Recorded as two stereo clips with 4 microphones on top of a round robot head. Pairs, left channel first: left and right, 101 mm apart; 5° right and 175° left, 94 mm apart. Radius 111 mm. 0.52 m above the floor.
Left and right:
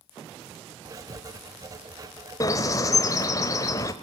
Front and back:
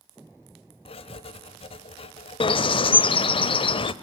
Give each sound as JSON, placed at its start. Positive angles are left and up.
{"t": 0.8, "sound": "writing", "azimuth_deg": -30, "distance_m": 1.2}
{"t": 2.4, "sound": "a bird", "azimuth_deg": 25, "distance_m": 0.8}